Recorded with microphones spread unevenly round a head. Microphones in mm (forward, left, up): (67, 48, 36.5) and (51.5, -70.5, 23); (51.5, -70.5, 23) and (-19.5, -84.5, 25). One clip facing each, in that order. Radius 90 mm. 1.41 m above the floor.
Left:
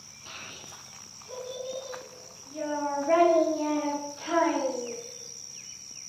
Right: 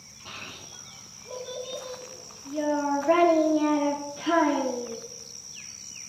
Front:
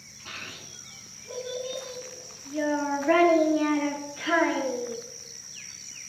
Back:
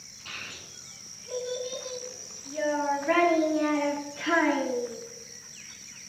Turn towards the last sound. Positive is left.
turn(degrees=-85)